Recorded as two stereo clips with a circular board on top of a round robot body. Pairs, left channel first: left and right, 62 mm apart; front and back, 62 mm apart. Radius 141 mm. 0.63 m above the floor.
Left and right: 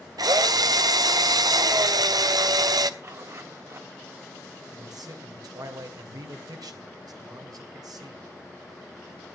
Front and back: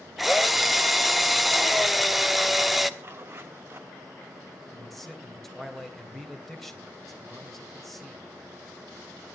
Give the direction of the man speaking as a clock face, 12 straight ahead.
3 o'clock.